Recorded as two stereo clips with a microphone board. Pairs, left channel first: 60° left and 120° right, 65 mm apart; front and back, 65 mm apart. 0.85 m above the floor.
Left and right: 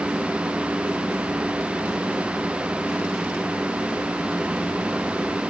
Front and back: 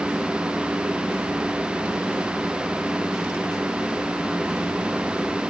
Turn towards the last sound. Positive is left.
No sound to turn to.